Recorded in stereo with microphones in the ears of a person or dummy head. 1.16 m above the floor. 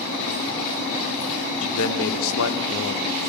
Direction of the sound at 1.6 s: 80° left.